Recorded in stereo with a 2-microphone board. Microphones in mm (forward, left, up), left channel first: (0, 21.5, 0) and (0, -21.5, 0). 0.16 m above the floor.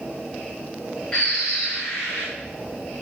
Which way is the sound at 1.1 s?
20° left (ahead or behind).